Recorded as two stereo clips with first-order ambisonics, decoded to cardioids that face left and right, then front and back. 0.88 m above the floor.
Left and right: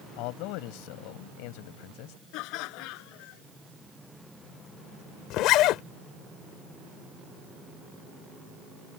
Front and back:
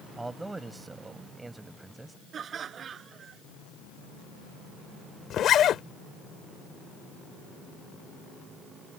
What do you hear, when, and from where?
0.2 s a man speaking: 100° left
2.3 s laughter: 115° left
5.3 s a zipper: 55° left